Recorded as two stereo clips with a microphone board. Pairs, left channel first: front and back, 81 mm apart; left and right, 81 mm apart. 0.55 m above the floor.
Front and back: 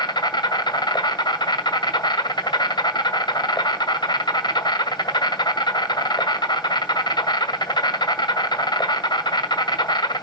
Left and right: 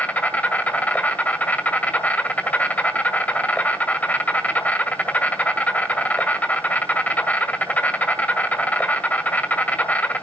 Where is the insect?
20° left, 1.7 m.